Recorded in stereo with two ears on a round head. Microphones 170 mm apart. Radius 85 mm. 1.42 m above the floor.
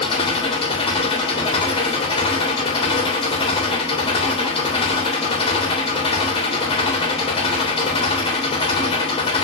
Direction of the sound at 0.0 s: 30° left (ahead or behind).